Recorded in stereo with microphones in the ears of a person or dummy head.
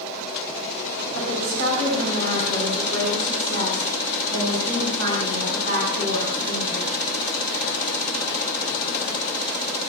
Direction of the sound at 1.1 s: 70° right (ahead or behind).